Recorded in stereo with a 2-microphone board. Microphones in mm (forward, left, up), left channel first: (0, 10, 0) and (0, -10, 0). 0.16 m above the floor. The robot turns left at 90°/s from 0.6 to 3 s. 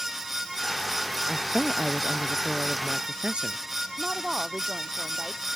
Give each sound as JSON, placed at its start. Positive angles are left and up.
{"t": 1.3, "sound": "a woman speaking", "azimuth_deg": 90}
{"t": 4.0, "sound": "a woman speaking", "side_deg": -30}